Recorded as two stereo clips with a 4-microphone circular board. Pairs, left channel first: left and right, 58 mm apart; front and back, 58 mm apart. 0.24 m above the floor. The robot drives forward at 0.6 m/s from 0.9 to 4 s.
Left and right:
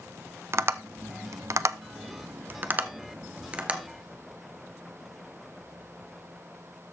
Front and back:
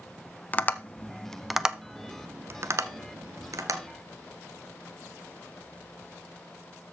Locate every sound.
0.5 s tapping: 55° right, 0.7 m; by 3.8 s 160° right, 1.5 m